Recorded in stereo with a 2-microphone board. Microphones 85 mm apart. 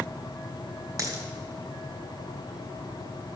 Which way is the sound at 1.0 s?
40° right (ahead or behind).